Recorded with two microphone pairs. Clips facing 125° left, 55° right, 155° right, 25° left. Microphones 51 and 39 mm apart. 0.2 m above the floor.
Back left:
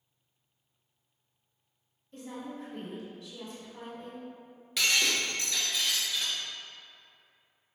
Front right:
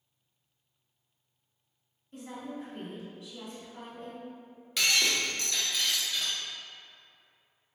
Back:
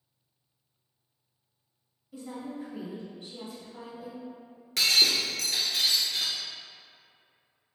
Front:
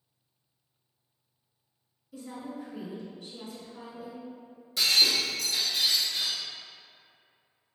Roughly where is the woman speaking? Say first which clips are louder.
Front right 1 dB, back 1 dB; behind right.